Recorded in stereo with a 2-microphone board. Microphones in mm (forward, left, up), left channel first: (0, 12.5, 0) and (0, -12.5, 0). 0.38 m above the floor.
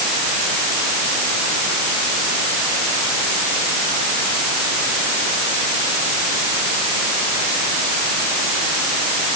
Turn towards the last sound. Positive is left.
No sound to turn to.